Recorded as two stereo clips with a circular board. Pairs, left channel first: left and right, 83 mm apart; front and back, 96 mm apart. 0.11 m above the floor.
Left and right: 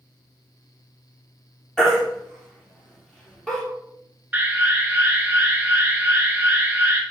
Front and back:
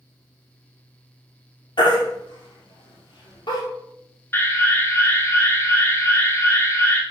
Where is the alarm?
40° right, 1.2 m.